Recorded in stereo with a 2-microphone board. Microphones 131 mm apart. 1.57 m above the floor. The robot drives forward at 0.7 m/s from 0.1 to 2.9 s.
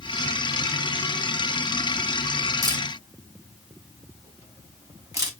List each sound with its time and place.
2.6 s a camera shutter: 30° right (ahead or behind), 1.6 m; by 5.3 s 25° right (ahead or behind), 1.8 m